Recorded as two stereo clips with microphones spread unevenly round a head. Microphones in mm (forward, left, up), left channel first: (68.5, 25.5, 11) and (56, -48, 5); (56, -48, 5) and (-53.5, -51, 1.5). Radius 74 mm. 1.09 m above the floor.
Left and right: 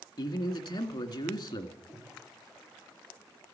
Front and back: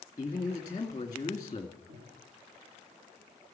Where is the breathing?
155° left, 8.5 m.